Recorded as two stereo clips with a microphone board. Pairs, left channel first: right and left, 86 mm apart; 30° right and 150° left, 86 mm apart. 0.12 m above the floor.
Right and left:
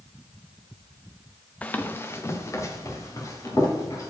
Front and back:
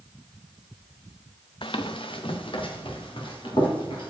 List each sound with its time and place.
1.6 s running footsteps: 15° right, 0.6 m; by 4.1 s 40° right, 3 m